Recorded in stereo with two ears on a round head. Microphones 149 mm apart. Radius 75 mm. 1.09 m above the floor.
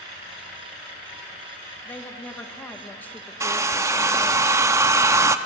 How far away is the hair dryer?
About 0.6 m.